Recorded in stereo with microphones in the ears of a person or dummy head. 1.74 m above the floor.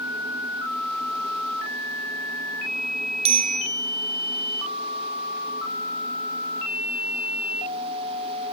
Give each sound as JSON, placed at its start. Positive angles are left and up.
{"t": 3.2, "sound": "a bicycle bell", "side_deg": -40, "distance_m": 7.0}